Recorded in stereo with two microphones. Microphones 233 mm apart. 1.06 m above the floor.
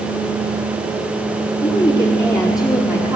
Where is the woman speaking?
20° left (ahead or behind), 3 m; by 3.2 s 15° right (ahead or behind), 3 m.